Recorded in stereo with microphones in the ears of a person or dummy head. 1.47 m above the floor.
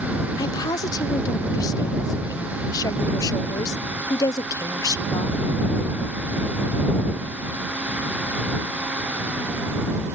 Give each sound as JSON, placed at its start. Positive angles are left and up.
{"t": 0.4, "sound": "a woman speaking", "side_deg": 20}